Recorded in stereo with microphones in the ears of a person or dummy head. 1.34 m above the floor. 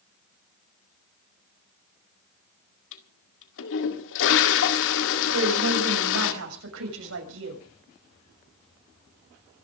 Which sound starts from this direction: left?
A toilet flushing, at 2.9 s.